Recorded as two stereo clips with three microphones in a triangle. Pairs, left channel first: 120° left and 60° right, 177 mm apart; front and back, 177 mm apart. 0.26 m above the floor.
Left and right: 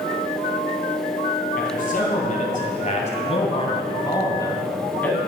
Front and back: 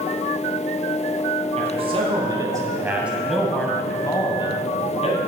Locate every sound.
1.6 s a man speaking: 135° left, 2 m; by 5.2 s 40° left, 2 m